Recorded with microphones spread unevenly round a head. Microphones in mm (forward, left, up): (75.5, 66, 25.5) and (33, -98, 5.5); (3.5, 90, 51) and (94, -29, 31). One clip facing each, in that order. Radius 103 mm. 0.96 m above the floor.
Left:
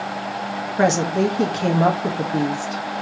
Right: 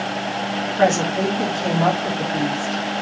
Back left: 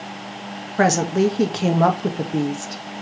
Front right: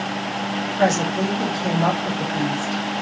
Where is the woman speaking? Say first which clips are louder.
Even, back left 3 dB; 130° left, 1.5 m.